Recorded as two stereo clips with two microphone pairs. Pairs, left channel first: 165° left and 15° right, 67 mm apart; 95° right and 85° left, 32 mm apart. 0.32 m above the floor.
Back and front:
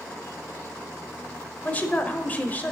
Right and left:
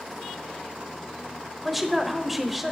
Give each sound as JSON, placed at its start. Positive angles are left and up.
{"t": 1.6, "sound": "a woman speaking", "azimuth_deg": 165, "distance_m": 0.9}